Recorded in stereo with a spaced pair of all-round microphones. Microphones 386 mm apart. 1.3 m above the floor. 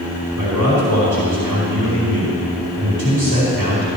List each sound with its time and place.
0.4 s a man speaking: 80° right, 4 m